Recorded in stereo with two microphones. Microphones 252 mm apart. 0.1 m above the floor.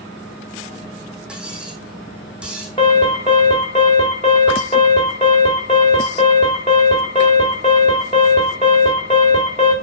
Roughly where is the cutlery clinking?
Centre.